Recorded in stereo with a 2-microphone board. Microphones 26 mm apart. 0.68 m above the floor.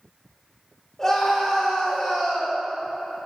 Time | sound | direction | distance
1.0 | a scream | 15° left (ahead or behind) | 2.5 m